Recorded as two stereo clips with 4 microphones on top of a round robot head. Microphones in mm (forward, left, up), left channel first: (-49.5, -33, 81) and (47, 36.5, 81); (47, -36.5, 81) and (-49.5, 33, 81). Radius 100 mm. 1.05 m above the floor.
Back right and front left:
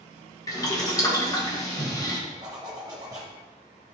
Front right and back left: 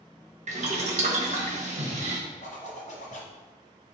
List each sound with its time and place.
0.5 s boiling: 155° left, 1.2 m
2.4 s a zipper: 20° right, 0.9 m